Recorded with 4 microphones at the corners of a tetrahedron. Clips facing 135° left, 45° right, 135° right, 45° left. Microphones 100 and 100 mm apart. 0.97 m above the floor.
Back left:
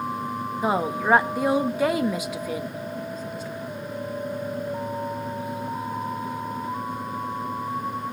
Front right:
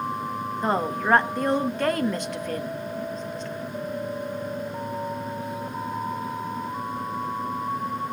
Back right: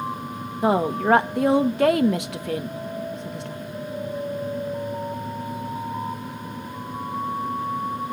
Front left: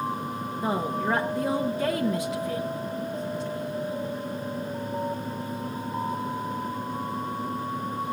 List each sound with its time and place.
0.6 s a woman speaking: 145° right, 1.1 m